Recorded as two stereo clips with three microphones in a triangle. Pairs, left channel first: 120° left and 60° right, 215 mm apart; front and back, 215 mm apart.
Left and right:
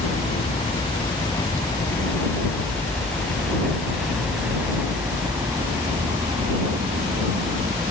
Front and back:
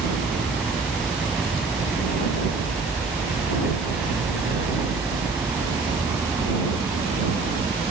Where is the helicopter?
85° left; by 7.9 s 105° right.